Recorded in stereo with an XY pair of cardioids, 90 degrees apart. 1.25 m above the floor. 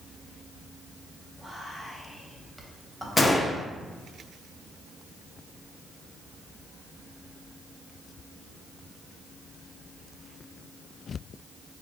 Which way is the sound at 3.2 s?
30° left.